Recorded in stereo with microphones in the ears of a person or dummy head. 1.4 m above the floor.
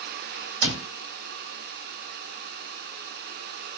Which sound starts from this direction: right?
A cupboard door, at 0.6 s.